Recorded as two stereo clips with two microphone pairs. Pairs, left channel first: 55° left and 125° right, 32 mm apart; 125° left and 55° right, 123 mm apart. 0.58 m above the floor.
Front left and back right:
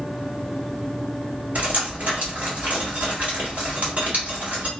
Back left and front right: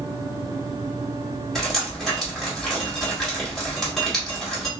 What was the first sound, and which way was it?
Dripping, 145° right.